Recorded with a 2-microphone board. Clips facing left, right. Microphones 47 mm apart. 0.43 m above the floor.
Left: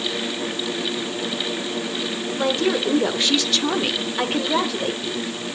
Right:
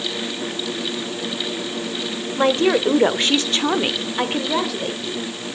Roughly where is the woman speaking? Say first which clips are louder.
Right 5 dB; right.